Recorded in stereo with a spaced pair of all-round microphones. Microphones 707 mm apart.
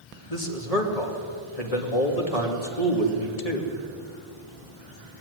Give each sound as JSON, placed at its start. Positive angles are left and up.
{"t": 0.3, "sound": "a man speaking", "side_deg": 60, "distance_m": 3.0}